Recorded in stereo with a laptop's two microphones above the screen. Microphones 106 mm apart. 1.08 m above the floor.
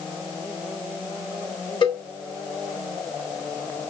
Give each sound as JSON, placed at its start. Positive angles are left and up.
{"t": 1.8, "sound": "a cowbell", "side_deg": 45, "distance_m": 1.3}